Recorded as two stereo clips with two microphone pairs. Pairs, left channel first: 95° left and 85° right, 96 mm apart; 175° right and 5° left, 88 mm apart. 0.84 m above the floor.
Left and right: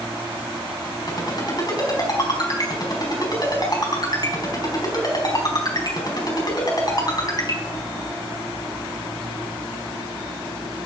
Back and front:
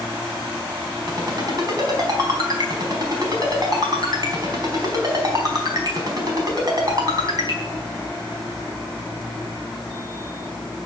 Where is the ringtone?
45° left, 4.5 m.